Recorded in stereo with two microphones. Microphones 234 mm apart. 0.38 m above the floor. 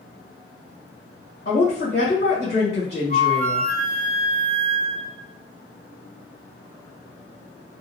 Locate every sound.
1.4 s a woman speaking: 45° left (ahead or behind), 1.7 m
3.1 s a flute: 35° left (ahead or behind), 0.7 m